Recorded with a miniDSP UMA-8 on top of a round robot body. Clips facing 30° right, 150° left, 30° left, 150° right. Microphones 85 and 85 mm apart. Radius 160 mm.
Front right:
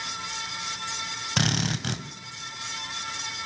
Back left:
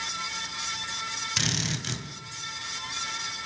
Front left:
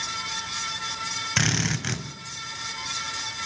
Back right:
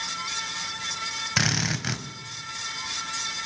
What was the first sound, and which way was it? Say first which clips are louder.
A drill: front right 7 dB, front left 1 dB; 65° right.